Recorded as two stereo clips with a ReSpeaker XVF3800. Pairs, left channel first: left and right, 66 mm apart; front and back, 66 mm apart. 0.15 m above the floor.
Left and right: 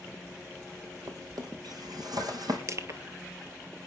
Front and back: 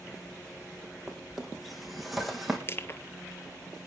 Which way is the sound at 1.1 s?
90° right.